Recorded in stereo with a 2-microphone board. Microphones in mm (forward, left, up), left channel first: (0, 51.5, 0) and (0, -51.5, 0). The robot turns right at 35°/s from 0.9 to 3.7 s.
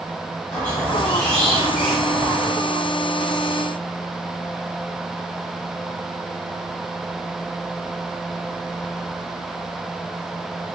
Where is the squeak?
155° left, 1.5 m; by 2.5 s 150° right, 1.5 m.